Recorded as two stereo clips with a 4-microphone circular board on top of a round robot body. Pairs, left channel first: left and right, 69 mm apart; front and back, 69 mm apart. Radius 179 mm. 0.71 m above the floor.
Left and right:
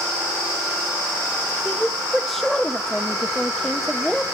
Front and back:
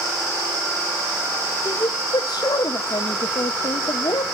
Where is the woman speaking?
5° left, 0.8 m.